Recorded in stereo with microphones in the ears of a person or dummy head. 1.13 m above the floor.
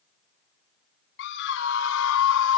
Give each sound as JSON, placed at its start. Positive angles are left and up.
{"t": 1.2, "sound": "a scream", "side_deg": 65}